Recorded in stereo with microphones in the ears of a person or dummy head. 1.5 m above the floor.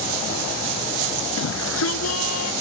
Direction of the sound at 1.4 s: 80° left.